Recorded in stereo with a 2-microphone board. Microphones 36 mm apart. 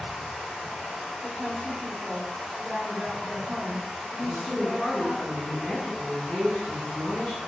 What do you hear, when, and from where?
0.0 s running water: 5° left (ahead or behind), 1.2 m
1.2 s a woman speaking: 10° right (ahead or behind), 1.7 m
4.2 s a woman speaking: 40° left (ahead or behind), 1.6 m